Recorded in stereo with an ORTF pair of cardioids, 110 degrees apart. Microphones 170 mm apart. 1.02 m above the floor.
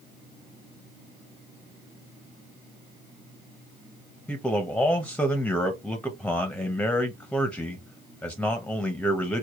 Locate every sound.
4.3 s a man speaking: 10° left, 0.7 m